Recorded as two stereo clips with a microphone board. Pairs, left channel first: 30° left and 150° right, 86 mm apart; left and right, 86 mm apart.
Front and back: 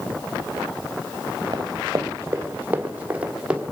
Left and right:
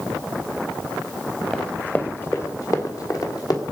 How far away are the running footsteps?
About 1.3 m.